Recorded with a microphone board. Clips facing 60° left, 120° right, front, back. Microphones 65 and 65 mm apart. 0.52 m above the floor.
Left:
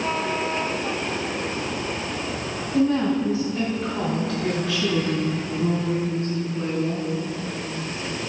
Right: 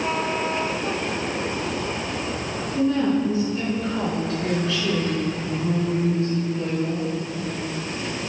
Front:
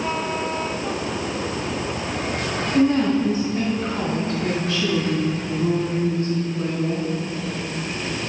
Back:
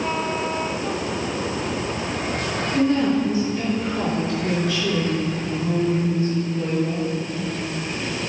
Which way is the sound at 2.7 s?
60° left.